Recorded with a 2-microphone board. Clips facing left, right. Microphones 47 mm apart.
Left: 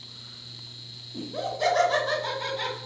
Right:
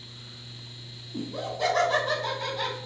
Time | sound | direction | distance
1.1 | laughter | 25° right (ahead or behind) | 1.6 m